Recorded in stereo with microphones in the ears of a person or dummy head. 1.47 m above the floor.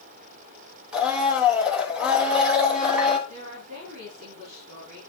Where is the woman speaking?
60° right (ahead or behind), 3.5 m.